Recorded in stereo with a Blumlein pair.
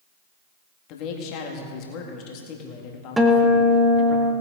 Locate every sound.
0.9 s a man speaking: 40° left, 2 m
3.2 s a guitar: 10° right, 1.3 m